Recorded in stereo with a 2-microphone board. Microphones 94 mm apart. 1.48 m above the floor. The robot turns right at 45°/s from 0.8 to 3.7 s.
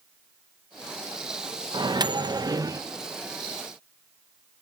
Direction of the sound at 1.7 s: 95° right.